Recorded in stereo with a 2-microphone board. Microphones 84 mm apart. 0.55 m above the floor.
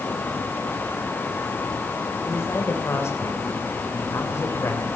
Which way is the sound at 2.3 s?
35° left (ahead or behind).